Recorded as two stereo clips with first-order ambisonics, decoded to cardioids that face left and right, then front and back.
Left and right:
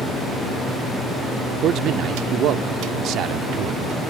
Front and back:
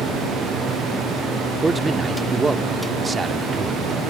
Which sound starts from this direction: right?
A man speaking, at 1.6 s.